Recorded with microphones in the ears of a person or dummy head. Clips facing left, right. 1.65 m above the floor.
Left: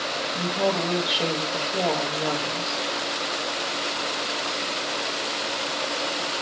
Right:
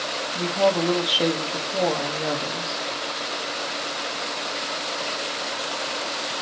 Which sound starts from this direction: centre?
A woman speaking, at 0.3 s.